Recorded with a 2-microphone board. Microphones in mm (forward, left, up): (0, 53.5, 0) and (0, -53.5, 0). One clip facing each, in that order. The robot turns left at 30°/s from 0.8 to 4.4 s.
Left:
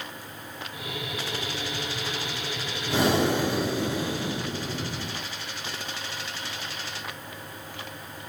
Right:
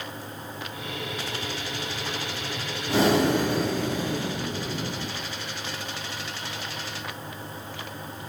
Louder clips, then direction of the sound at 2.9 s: Right 2 dB; 40° right.